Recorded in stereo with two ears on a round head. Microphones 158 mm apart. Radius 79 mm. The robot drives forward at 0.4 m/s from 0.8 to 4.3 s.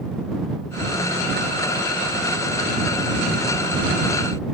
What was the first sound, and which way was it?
Only background noise.